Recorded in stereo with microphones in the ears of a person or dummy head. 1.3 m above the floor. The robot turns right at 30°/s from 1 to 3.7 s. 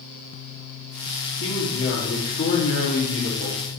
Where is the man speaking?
120° left, 2.5 m; by 3.6 s 170° right, 2.5 m.